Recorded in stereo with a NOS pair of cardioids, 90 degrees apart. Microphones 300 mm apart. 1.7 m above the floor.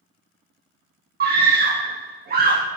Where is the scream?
35° right, 0.8 m.